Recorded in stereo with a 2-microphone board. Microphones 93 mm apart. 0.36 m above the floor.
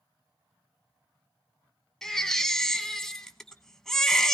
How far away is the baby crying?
About 0.9 m.